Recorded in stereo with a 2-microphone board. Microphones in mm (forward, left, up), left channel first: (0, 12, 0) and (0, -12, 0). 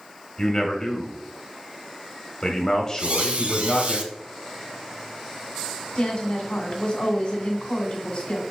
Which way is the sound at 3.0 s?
60° right (ahead or behind).